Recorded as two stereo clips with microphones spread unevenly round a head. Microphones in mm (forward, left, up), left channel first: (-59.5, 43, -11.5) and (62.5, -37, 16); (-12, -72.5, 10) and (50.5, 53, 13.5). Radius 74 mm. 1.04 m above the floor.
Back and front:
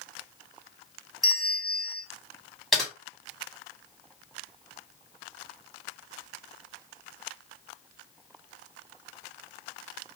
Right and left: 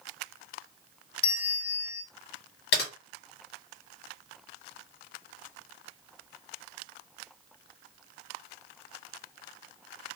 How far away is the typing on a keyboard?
About 1.2 m.